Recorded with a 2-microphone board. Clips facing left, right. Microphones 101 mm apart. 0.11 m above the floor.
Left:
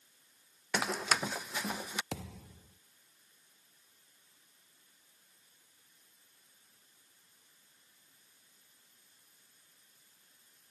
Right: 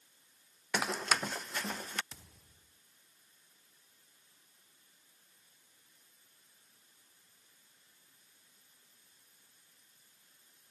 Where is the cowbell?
I don't hear a cowbell.